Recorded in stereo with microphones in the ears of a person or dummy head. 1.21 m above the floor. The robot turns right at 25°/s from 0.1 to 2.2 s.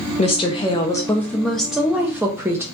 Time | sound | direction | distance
0.2 | a woman speaking | 140° left | 0.6 m